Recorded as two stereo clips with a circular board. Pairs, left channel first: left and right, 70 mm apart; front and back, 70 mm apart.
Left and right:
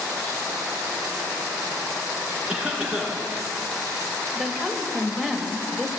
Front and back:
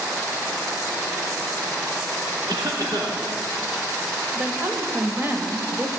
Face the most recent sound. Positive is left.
turn(degrees=-170)